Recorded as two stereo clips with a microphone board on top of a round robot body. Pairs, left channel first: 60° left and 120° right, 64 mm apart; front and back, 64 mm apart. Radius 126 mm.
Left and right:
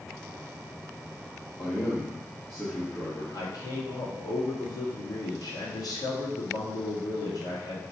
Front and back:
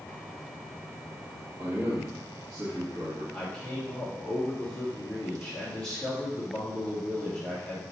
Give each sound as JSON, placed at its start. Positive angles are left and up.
{"t": 1.6, "sound": "a man speaking", "azimuth_deg": 115, "distance_m": 1.9}
{"t": 3.3, "sound": "a man speaking", "azimuth_deg": 80, "distance_m": 2.0}